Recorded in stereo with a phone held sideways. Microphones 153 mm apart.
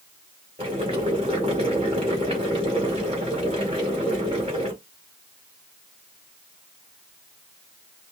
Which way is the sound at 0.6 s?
40° right (ahead or behind).